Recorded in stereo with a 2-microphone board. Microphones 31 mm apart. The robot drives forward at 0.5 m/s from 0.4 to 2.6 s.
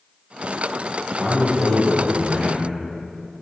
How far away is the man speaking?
About 1.9 m.